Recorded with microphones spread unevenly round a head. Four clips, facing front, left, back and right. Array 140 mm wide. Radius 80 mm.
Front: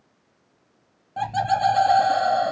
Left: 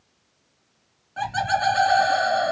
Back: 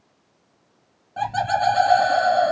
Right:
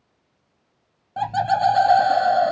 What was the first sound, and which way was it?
Laughter, 105° right.